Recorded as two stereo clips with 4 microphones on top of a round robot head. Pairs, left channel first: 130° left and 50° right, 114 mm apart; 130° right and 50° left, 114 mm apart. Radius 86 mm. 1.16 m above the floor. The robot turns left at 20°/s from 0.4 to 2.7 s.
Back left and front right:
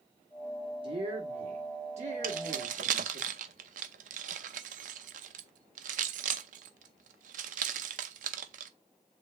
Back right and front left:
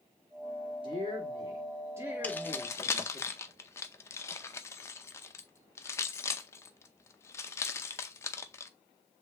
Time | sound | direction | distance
0.8 | a woman speaking | straight ahead | 2.5 m
2.2 | keys jangling | 55° right | 0.6 m